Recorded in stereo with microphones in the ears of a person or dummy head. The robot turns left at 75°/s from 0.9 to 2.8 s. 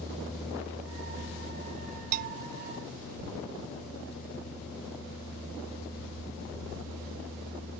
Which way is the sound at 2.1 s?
45° right (ahead or behind).